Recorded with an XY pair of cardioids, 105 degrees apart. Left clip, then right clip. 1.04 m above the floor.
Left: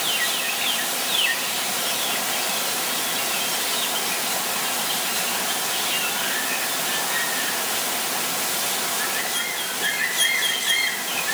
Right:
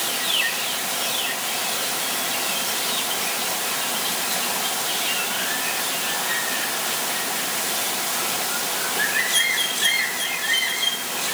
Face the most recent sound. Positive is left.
No sound to turn to.